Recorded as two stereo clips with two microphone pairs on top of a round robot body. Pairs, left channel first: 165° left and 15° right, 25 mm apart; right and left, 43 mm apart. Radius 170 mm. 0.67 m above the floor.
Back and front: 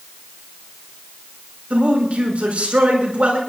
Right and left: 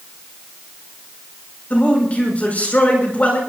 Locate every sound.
1.7 s a man speaking: 40° right, 8.5 m